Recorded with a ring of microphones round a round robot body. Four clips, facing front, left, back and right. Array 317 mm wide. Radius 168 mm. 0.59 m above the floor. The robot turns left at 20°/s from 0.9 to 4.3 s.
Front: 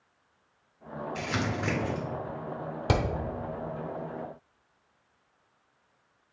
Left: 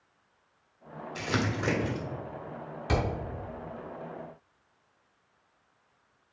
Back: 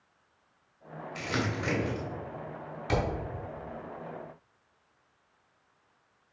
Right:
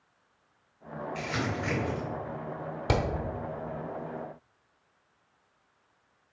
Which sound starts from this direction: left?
Crumpling, at 1.1 s.